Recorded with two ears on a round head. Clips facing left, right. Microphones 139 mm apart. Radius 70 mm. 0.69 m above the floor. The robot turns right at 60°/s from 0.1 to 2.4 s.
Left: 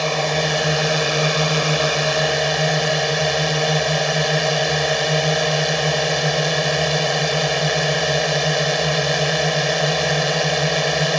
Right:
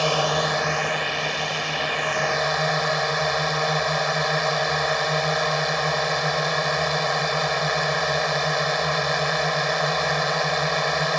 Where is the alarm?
I don't hear an alarm.